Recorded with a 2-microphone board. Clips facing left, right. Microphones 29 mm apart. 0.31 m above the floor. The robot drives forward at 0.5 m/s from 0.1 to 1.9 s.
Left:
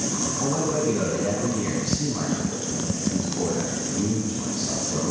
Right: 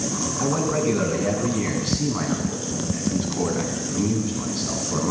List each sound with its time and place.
0.4 s a man speaking: 55° right (ahead or behind), 2.5 m; by 5.1 s 65° right (ahead or behind), 2.5 m